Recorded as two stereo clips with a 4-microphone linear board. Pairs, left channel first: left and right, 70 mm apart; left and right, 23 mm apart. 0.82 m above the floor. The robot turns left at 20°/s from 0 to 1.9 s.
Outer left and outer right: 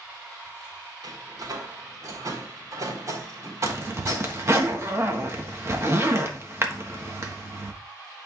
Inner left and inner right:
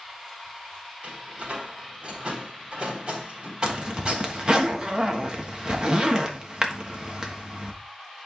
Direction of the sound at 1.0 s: 70° right (ahead or behind).